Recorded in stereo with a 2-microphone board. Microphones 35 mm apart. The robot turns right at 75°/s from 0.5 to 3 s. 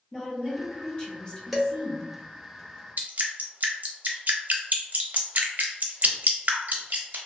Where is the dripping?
55° right (ahead or behind), 0.6 m.